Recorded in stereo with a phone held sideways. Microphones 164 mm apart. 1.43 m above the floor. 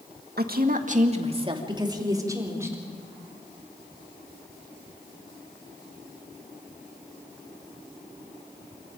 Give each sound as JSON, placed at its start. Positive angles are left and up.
{"t": 0.4, "sound": "a woman speaking", "side_deg": -70, "distance_m": 1.8}